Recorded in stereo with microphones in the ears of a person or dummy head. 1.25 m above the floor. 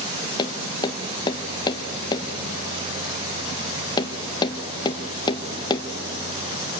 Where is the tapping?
25° left (ahead or behind), 1.0 m.